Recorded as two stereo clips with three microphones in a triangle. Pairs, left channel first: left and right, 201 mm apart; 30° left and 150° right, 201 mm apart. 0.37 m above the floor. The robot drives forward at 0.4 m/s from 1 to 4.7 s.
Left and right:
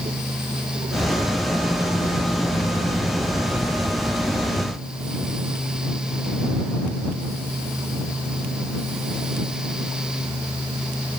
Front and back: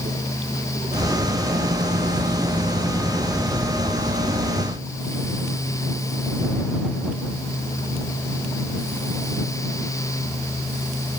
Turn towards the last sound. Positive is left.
No sound to turn to.